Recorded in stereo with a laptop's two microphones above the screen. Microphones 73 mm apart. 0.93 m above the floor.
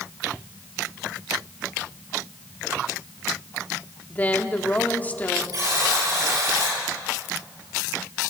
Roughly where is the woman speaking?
Left.